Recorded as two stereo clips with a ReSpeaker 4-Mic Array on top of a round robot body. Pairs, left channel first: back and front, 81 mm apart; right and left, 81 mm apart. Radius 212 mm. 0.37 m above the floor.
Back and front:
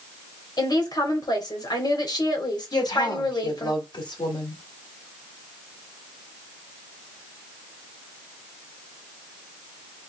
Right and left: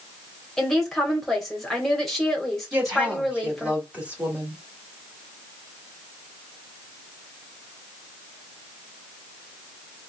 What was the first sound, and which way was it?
A woman speaking, 175° right.